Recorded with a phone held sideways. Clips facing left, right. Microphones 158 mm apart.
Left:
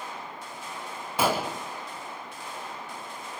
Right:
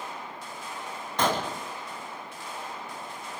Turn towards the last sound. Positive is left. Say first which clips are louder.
# left 1 dB
turn(degrees=10)  # may be behind; listen again after turning